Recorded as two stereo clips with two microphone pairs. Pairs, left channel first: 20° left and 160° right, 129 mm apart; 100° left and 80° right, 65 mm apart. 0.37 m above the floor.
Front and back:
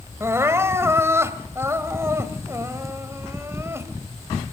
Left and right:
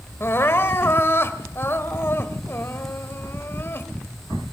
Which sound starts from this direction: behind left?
Crying, at 0.2 s.